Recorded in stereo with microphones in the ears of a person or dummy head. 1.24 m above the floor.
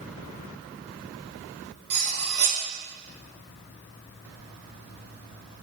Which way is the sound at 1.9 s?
55° right (ahead or behind).